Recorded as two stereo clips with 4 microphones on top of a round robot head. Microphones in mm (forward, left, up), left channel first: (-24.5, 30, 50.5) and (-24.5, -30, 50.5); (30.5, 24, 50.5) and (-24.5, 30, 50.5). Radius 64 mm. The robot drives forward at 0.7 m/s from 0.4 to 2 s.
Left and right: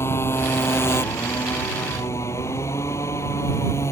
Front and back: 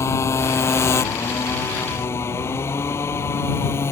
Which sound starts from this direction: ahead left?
A motorcycle, at 0.0 s.